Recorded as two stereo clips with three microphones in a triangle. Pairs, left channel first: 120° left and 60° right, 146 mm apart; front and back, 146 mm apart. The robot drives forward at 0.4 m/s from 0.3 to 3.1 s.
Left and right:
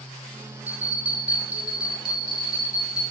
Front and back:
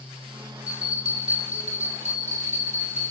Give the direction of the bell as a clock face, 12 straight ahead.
5 o'clock.